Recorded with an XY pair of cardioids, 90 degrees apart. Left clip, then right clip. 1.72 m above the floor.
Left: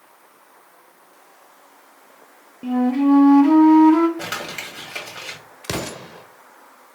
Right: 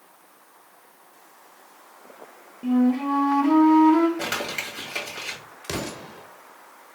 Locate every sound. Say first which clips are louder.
2.6 s a flute: left 4 dB; 30° left, 0.6 m
4.2 s crumpling: right 1 dB; 5° left, 2 m
5.6 s an explosion: left 4 dB; 50° left, 0.6 m